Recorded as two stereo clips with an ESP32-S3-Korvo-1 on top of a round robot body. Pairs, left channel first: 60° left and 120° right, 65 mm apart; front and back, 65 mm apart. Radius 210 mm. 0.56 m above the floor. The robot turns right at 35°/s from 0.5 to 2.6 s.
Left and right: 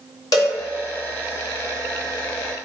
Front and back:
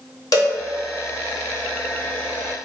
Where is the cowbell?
35° left, 0.9 m.